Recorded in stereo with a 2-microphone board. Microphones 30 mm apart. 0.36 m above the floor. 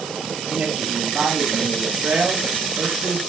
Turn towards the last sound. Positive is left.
turn(degrees=-60)  # may be behind; listen again after turning